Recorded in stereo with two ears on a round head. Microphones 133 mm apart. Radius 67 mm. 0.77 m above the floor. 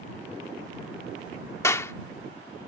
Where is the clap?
20° left (ahead or behind).